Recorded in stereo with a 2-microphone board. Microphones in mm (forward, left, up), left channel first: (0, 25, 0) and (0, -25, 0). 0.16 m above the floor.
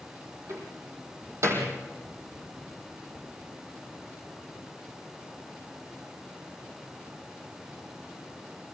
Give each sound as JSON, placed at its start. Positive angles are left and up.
{"t": 0.5, "sound": "a door slam", "side_deg": -60, "distance_m": 5.0}